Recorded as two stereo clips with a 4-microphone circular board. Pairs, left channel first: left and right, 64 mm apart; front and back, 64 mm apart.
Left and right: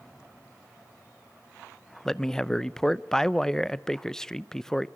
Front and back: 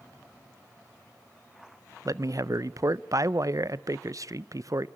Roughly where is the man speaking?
Behind.